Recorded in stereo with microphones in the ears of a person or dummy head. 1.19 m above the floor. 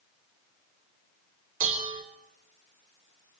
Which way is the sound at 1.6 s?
45° right (ahead or behind).